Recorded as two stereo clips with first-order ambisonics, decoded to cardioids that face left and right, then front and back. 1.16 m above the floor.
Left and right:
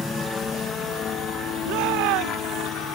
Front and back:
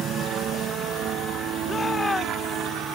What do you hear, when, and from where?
0.0 s a helicopter: 160° left; by 3.0 s 130° left
1.6 s a shout: 80° right